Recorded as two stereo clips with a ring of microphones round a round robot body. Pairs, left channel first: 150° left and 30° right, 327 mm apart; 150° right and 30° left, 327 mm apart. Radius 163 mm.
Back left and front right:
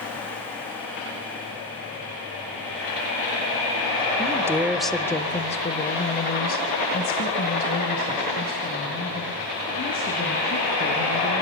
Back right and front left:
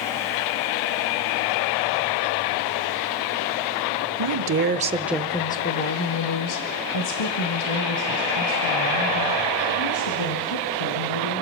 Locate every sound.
4.2 s a woman speaking: 45° left, 1.2 m; by 11.4 s 145° right, 5.5 m